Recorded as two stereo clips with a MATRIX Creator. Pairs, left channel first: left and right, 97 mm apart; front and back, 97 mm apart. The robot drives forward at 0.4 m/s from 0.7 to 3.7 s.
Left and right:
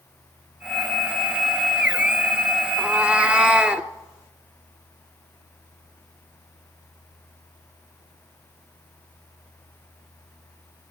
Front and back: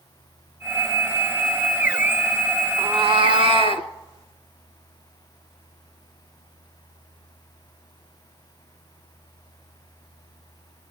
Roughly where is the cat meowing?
Behind.